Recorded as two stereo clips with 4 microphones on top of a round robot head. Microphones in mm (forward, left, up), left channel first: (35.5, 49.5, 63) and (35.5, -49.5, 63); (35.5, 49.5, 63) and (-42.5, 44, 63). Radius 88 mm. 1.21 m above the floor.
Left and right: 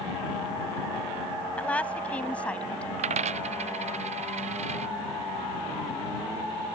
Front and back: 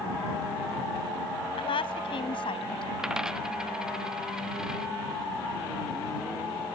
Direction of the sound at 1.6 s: 15° left.